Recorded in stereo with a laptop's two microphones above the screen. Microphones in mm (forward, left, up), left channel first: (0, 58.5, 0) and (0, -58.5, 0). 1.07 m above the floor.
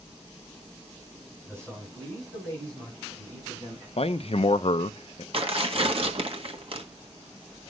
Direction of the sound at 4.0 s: 60° left (ahead or behind).